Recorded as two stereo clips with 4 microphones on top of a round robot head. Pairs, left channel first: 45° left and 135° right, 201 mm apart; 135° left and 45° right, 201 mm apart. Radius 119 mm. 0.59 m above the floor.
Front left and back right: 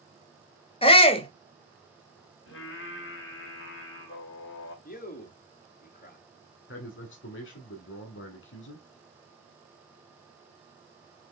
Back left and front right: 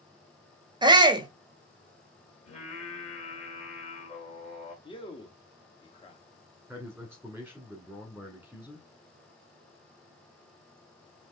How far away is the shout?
About 1.1 m.